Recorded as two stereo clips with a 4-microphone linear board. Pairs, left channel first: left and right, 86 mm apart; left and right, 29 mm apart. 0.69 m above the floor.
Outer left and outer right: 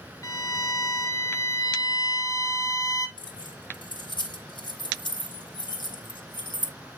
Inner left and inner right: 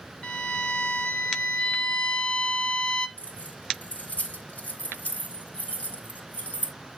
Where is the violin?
45° left (ahead or behind), 1.0 m.